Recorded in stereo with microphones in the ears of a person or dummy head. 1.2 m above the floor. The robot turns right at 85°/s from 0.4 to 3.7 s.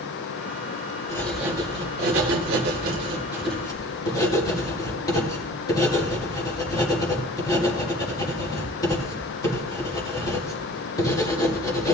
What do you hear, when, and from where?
1.1 s writing: 20° left (ahead or behind), 4.5 m